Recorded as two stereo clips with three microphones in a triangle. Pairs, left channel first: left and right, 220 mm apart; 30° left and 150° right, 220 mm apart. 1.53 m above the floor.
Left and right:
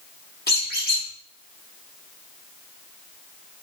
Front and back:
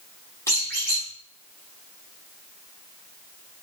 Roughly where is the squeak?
Left.